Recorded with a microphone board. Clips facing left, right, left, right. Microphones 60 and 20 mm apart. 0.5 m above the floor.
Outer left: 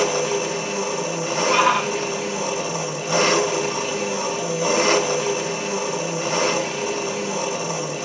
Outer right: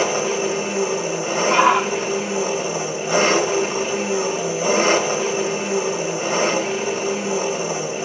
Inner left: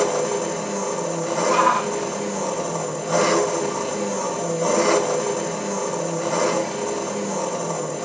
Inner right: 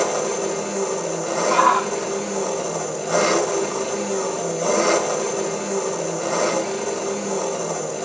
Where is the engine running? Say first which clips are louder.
Outer right 1 dB, even; 25° right (ahead or behind), 2 m.